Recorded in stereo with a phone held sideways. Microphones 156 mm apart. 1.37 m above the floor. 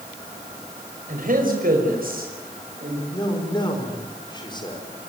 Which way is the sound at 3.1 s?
30° left (ahead or behind).